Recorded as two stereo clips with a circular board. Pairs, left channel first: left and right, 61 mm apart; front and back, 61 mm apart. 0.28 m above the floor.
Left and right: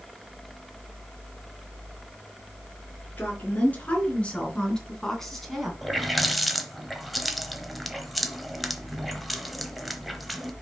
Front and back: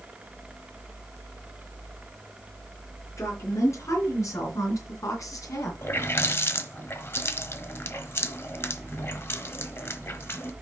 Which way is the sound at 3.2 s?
30° left.